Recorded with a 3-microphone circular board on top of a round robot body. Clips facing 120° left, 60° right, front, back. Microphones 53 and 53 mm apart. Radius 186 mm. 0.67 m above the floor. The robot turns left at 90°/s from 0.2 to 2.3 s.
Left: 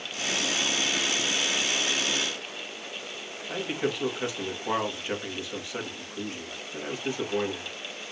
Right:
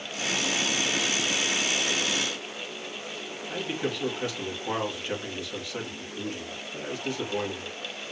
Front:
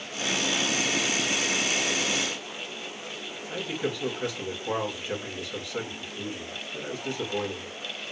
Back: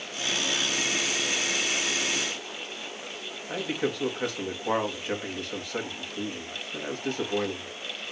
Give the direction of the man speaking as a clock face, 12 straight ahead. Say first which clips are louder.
Left 2 dB, back 2 dB; 6 o'clock.